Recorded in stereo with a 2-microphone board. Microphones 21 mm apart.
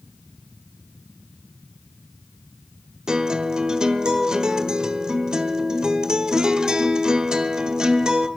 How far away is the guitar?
About 1.4 m.